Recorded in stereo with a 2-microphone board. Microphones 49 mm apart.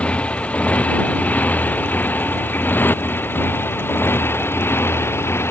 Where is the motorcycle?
25° left (ahead or behind); by 5.5 s 60° left (ahead or behind).